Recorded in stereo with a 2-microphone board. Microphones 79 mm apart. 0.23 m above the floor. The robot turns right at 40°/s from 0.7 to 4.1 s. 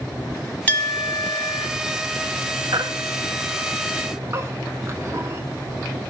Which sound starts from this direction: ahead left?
A clink, at 0.7 s.